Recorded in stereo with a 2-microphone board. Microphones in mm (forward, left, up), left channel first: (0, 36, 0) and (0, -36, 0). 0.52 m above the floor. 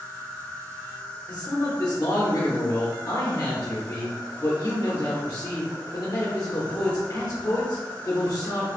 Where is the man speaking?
40° left (ahead or behind), 1.0 m.